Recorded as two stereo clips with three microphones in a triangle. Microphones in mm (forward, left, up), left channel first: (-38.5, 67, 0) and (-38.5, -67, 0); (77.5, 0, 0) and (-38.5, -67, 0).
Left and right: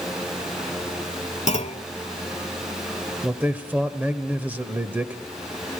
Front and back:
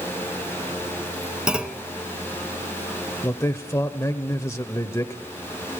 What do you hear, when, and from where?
1.5 s a clunk: 130° left, 0.8 m
3.2 s a man speaking: 20° right, 1.1 m